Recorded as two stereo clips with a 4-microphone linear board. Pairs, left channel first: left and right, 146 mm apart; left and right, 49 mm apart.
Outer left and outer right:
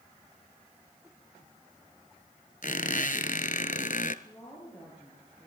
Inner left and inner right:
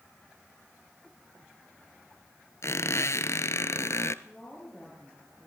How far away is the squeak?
About 0.9 m.